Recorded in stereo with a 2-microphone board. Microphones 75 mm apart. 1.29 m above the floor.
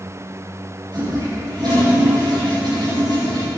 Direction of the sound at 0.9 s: 75° right (ahead or behind).